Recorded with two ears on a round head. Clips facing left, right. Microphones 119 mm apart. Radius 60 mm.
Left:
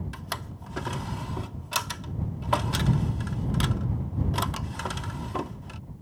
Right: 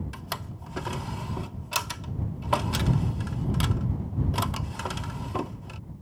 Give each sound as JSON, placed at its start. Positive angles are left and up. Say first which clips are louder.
{"t": 0.1, "sound": "a drawer", "louder": "even", "side_deg": -5}